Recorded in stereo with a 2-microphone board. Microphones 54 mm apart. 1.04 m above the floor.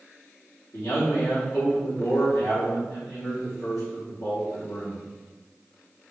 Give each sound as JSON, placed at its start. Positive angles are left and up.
{"t": 0.7, "sound": "a man speaking", "side_deg": 65, "distance_m": 3.5}